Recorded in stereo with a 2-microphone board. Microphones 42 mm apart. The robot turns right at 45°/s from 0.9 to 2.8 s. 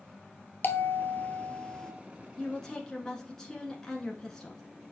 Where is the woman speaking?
15° left (ahead or behind), 1.1 m; by 4.6 s 10° left (ahead or behind), 1.1 m.